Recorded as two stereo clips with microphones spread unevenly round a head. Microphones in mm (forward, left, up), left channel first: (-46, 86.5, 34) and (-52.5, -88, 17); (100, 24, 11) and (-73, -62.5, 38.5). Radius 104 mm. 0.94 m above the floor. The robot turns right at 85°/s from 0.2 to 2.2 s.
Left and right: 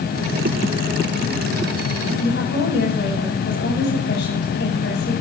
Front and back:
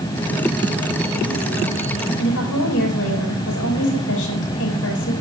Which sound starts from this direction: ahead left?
A woman speaking, at 2.2 s.